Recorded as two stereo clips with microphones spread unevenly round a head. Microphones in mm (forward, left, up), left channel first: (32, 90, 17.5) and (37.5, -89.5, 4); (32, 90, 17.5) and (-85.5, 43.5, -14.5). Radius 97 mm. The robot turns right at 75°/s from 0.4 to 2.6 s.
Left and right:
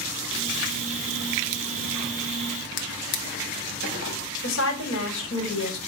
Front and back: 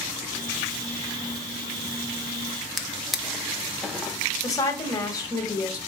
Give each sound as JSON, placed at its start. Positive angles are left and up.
{"t": 2.8, "sound": "a drawer", "azimuth_deg": 105, "distance_m": 0.7}
{"t": 4.4, "sound": "a woman speaking", "azimuth_deg": 90, "distance_m": 1.4}